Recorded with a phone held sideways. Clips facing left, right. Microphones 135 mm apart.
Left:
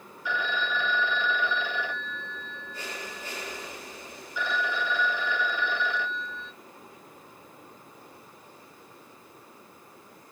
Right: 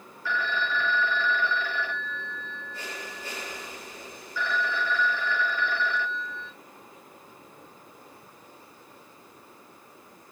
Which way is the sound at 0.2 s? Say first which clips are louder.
Right 1 dB; 15° left (ahead or behind).